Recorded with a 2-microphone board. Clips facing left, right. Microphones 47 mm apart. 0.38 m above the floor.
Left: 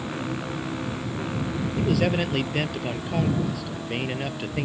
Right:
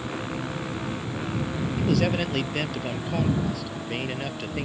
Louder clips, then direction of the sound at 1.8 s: Left 1 dB; 10° left (ahead or behind).